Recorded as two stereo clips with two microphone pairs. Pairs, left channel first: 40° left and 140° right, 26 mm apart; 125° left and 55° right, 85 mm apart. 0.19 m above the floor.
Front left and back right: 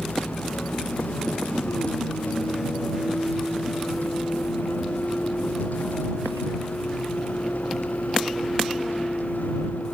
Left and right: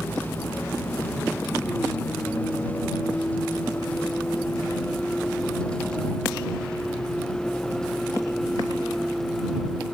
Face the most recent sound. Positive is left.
turn(degrees=35)